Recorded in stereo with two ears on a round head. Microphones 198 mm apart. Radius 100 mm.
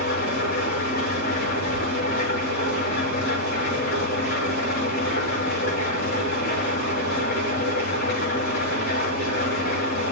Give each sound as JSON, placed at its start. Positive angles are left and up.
{"t": 0.0, "sound": "an engine running", "side_deg": 45, "distance_m": 6.5}